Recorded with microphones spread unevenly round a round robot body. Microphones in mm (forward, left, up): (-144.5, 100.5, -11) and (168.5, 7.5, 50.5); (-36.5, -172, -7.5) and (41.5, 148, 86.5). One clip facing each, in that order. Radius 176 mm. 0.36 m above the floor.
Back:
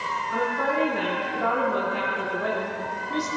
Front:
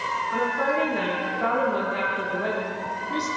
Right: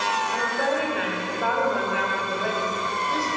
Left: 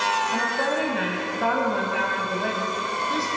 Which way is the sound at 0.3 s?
75° left.